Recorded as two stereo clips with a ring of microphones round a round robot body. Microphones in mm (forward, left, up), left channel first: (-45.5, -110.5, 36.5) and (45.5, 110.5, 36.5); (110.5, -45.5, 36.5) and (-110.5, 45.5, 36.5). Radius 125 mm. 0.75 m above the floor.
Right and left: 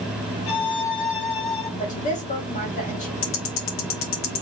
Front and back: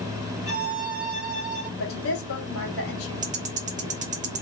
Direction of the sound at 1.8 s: 55° right.